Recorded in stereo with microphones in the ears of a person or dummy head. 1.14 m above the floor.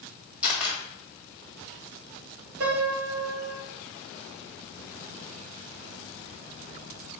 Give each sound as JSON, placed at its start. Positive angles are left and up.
{"t": 0.4, "sound": "a camera shutter", "side_deg": -5, "distance_m": 1.4}
{"t": 2.6, "sound": "a piano", "side_deg": -60, "distance_m": 1.9}